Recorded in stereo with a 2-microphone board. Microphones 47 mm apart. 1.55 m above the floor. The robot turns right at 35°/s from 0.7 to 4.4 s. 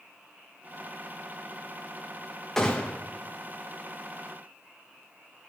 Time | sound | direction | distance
2.6 | a gunshot | 10° left (ahead or behind) | 1.7 m